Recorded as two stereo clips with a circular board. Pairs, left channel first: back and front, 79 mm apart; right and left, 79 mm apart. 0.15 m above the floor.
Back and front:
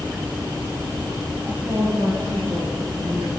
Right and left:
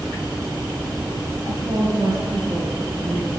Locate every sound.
1.5 s a woman speaking: 75° left, 1.3 m; by 3.3 s 5° left, 2 m